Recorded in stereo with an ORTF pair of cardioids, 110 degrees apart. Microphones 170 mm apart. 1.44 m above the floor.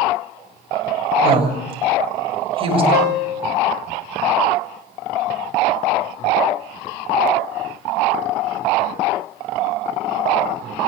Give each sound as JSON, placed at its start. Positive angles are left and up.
{"t": 1.2, "sound": "a woman speaking", "azimuth_deg": -30, "distance_m": 8.0}
{"t": 2.9, "sound": "a piano", "azimuth_deg": 50, "distance_m": 2.5}